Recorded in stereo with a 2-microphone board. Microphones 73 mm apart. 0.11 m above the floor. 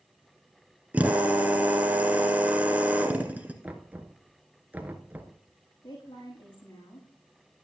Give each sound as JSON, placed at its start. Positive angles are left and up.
{"t": 0.9, "sound": "a drill", "side_deg": -20, "distance_m": 1.4}
{"t": 3.6, "sound": "knocking", "side_deg": -20, "distance_m": 0.9}
{"t": 5.8, "sound": "a woman speaking", "side_deg": 70, "distance_m": 5.5}